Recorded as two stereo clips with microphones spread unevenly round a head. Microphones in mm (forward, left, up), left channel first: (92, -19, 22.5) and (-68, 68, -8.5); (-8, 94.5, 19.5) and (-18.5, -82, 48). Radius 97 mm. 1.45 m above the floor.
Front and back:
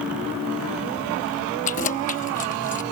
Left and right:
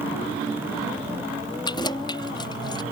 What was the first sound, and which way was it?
Keys jangling, 15° left.